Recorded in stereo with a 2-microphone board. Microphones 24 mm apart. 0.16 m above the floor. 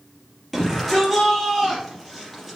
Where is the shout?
5° right (ahead or behind), 3.5 m.